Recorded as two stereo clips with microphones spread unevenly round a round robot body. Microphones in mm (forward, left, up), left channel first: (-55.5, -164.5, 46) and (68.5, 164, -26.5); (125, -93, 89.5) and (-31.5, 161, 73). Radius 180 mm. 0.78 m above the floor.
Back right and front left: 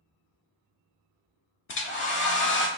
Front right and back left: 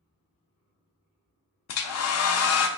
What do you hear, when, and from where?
1.7 s a hair dryer: 50° right, 0.6 m